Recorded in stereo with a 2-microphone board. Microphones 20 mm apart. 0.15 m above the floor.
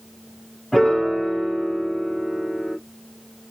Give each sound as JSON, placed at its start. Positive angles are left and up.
{"t": 0.7, "sound": "a piano", "side_deg": 5, "distance_m": 1.4}